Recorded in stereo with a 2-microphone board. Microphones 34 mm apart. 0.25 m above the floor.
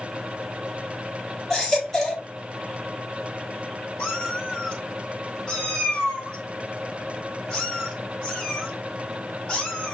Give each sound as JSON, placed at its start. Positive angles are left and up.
{"t": 1.5, "sound": "a baby crying", "side_deg": 15, "distance_m": 3.5}
{"t": 4.0, "sound": "a cat meowing", "side_deg": 25, "distance_m": 3.5}